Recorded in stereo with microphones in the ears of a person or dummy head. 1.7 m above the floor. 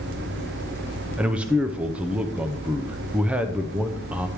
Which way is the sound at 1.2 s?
5° right (ahead or behind).